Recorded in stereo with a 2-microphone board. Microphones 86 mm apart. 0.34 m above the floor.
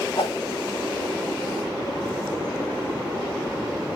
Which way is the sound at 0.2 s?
65° left (ahead or behind).